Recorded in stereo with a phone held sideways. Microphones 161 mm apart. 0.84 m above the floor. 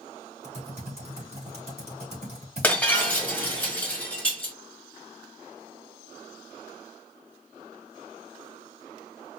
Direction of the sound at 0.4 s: 45° right (ahead or behind).